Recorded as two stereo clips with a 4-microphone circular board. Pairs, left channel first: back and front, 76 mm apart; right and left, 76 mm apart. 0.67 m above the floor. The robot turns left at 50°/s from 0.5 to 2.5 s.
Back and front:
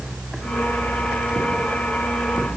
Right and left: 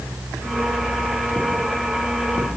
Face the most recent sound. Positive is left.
No sound to turn to.